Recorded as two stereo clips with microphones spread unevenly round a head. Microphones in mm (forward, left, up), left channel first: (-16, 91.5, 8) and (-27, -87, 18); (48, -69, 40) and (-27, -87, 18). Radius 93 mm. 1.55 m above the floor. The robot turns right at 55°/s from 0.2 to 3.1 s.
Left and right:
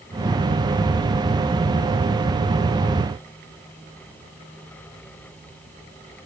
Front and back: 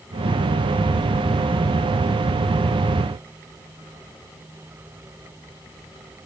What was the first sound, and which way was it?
Only background noise.